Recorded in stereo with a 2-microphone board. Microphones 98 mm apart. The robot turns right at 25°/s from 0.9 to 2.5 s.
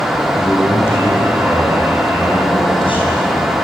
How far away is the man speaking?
About 7 m.